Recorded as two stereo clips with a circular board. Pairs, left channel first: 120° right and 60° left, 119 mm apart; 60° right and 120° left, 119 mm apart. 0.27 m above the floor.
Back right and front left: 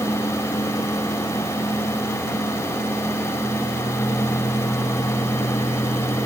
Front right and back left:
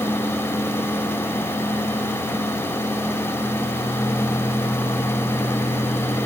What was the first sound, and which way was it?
Only background noise.